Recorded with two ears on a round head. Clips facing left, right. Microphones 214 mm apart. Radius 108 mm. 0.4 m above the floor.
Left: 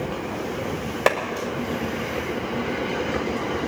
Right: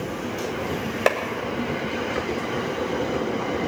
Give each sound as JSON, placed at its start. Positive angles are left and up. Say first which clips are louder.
{"t": 1.1, "sound": "a clap", "louder": "left 1 dB", "side_deg": 0, "distance_m": 1.7}